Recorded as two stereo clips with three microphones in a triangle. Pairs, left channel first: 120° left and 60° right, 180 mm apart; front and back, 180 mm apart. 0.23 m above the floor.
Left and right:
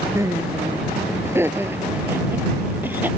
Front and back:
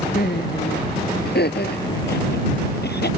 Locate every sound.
0.1 s laughter: 10° left; by 3.1 s 20° left